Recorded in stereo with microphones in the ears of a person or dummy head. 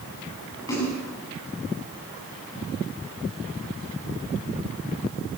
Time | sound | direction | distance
0.7 | a splash | 15° left (ahead or behind) | 8.5 m